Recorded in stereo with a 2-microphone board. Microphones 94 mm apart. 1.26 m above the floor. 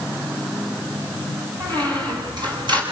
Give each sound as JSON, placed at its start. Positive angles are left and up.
{"t": 1.6, "sound": "a squeak", "side_deg": -50, "distance_m": 8.0}